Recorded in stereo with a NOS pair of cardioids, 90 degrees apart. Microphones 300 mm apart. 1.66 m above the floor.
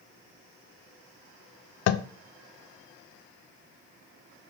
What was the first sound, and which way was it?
Tapping, 60° left.